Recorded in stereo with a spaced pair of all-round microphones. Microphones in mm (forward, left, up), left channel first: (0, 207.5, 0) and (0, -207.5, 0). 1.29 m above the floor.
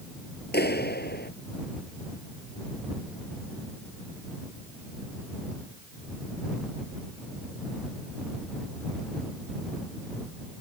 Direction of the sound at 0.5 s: 25° left (ahead or behind).